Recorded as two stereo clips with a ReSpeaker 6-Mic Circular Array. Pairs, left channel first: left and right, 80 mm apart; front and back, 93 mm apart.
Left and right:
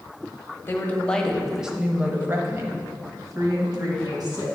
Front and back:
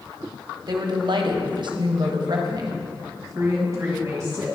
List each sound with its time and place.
0.7 s a woman speaking: 150° left, 0.9 m; by 4.6 s 120° right, 1.9 m